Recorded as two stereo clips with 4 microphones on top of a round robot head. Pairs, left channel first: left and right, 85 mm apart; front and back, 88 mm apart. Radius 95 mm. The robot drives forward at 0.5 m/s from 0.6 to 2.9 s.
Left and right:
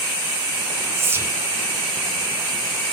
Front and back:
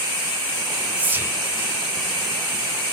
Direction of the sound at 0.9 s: 120° right.